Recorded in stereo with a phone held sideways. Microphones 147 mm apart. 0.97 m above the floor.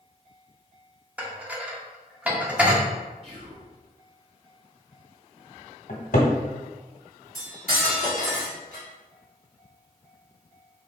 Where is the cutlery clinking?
75° right (ahead or behind), 1.4 m.